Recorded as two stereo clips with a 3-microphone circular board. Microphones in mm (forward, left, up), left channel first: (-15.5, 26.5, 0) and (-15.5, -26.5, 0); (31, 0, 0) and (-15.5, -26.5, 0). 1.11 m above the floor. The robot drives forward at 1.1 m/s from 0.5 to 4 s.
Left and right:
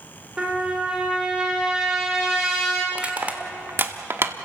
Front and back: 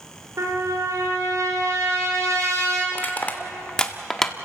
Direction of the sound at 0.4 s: 165° right.